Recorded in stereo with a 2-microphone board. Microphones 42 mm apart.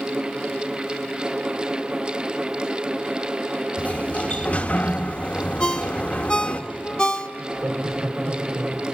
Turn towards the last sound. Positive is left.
turn(degrees=-70)  # may be behind; listen again after turning